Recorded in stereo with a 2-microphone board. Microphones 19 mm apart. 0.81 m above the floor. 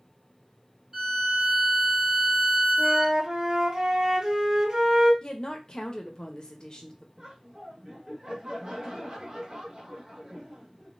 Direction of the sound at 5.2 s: 40° left (ahead or behind).